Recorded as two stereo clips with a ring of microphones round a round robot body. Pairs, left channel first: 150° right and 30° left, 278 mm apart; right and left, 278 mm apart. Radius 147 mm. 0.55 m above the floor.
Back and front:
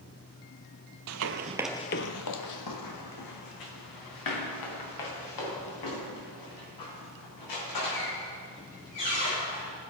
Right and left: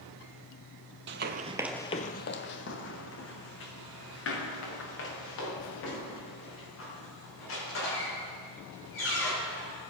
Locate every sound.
1.1 s running footsteps: 45° left, 0.8 m; by 9.7 s 135° right, 9 m